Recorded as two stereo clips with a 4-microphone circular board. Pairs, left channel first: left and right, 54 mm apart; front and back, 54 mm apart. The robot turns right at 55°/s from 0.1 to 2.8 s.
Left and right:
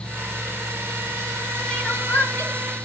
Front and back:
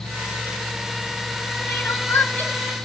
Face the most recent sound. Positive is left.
turn(degrees=75)